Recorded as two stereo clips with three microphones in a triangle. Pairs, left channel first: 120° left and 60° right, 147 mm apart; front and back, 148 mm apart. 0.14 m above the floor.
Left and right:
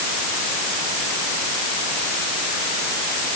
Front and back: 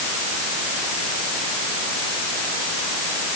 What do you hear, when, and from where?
Only background noise.